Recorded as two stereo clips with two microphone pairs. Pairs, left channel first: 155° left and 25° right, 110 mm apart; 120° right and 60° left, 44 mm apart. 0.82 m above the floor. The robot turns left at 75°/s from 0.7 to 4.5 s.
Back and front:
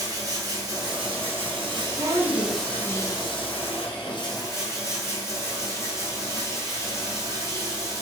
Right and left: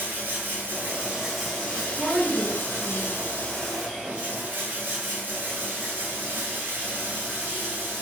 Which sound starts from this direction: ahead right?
A woman speaking, at 2.0 s.